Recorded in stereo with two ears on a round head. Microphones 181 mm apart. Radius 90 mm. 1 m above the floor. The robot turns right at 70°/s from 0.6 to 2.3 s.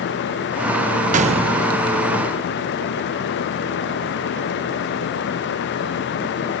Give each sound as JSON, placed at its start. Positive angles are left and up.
{"t": 1.1, "sound": "a gunshot", "azimuth_deg": -60}